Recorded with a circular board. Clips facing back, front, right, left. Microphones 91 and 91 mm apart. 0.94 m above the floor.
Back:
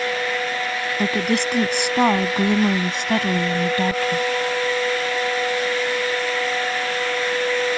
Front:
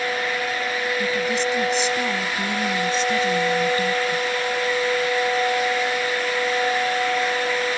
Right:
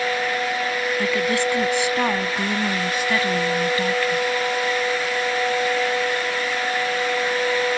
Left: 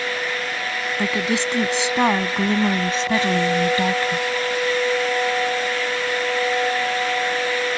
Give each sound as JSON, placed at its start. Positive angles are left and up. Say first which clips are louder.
{"t": 1.0, "sound": "a woman speaking", "louder": "back 4 dB, even", "azimuth_deg": 160}